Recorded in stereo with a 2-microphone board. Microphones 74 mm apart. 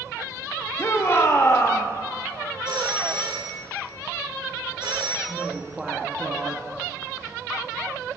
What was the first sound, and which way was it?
A shout, 35° left (ahead or behind).